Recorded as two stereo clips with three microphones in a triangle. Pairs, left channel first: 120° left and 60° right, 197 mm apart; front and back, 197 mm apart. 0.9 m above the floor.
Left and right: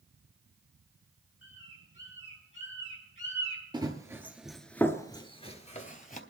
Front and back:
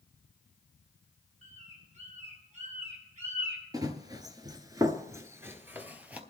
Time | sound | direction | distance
1.4 | a bird | 130° left | 5.5 m
3.7 | running footsteps | 115° right | 1.1 m